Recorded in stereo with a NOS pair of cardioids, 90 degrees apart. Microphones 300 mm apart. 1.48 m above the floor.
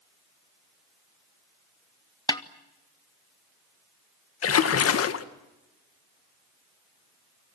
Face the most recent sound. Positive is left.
turn(degrees=50)